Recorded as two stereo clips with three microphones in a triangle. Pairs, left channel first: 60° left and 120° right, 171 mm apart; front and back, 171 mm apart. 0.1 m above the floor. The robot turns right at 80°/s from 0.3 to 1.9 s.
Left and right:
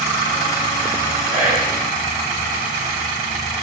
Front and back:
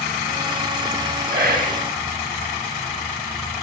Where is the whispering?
175° right, 5.5 m; by 1.8 s 135° right, 5.5 m.